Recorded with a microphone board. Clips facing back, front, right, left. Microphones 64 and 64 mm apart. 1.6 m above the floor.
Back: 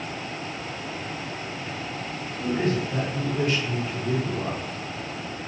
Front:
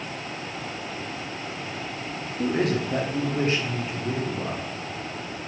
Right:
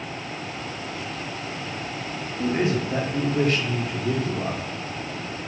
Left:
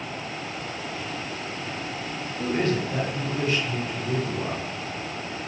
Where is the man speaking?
5° right, 0.7 m; by 4.7 s 90° right, 1.1 m.